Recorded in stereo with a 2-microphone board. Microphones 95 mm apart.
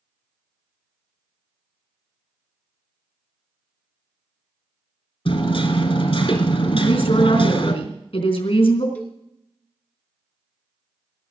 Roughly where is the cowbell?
Centre.